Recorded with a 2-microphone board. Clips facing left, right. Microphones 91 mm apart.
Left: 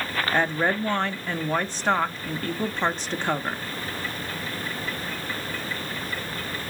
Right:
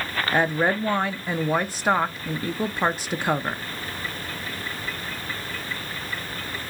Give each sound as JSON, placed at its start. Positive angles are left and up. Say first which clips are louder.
{"t": 0.3, "sound": "a woman speaking", "louder": "right 2 dB", "side_deg": -10, "distance_m": 0.6}